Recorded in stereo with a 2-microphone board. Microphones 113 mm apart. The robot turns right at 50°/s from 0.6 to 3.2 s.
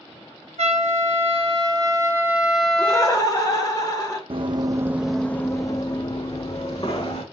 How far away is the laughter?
About 1.0 m.